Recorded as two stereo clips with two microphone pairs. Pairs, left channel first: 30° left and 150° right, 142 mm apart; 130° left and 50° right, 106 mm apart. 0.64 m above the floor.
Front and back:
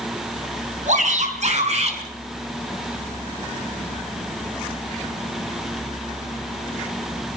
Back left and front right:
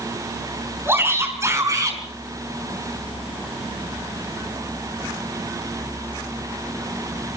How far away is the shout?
About 6.5 m.